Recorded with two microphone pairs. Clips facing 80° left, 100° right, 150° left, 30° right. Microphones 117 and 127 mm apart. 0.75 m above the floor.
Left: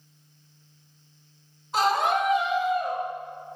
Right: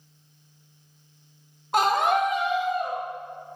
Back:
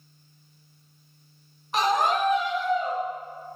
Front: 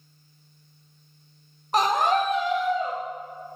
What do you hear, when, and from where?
1.7 s a scream: 75° right, 1.1 m; by 3.0 s 45° right, 2.5 m